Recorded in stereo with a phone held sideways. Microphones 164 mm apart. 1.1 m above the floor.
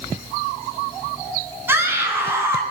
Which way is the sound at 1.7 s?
15° right (ahead or behind).